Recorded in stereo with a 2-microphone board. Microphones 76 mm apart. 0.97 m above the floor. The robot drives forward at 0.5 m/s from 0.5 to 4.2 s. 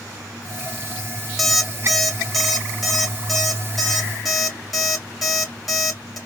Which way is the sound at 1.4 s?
Centre (ahead or behind).